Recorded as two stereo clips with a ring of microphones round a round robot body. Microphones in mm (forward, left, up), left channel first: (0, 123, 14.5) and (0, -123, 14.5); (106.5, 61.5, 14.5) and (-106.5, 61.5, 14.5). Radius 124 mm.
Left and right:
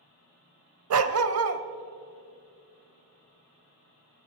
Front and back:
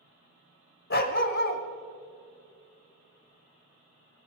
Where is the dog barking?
55° right, 0.7 m.